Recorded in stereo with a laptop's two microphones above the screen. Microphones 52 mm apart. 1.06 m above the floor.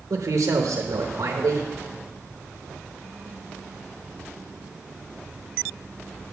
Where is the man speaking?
80° right, 0.9 m.